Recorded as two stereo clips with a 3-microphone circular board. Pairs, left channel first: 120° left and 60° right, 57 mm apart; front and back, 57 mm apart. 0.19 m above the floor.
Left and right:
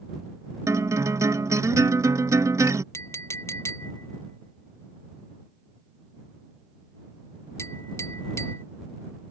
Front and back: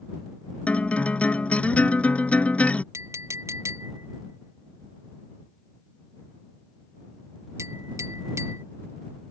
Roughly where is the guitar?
Ahead right.